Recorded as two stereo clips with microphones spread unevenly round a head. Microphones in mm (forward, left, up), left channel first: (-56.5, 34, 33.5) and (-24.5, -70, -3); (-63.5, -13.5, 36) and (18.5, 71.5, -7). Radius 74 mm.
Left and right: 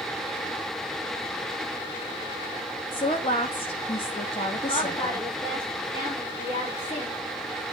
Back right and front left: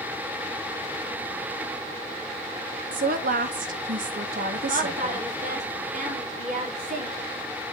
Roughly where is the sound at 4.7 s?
Ahead left.